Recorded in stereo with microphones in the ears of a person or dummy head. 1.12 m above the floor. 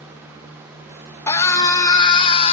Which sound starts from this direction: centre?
A scream, at 1.3 s.